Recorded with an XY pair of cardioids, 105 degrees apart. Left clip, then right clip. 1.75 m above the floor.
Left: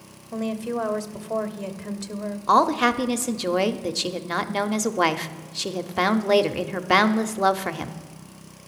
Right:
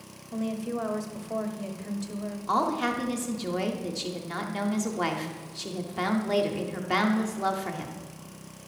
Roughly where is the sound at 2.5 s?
Ahead left.